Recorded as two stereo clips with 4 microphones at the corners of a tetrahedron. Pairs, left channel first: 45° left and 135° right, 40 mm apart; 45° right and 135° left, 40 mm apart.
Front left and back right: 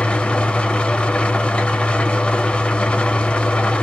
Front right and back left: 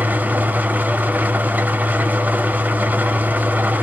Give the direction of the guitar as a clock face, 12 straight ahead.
No guitar in this recording.